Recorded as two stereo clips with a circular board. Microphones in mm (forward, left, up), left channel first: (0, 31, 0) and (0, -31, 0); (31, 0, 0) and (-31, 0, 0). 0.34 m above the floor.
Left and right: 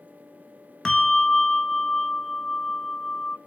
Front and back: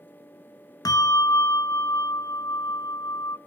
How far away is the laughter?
I don't hear laughter.